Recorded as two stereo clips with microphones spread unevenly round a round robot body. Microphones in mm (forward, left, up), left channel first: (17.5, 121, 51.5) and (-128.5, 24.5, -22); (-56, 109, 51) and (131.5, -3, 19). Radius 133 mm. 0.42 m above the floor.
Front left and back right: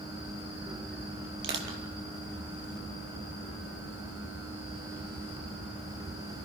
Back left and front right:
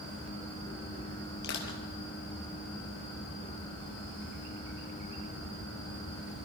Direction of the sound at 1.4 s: 160° right.